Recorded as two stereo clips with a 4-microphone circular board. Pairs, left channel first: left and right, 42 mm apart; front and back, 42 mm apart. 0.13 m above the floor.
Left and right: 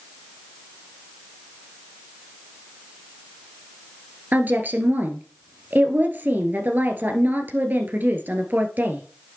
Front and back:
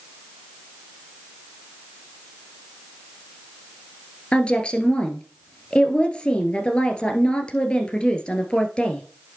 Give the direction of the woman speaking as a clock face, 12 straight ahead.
2 o'clock.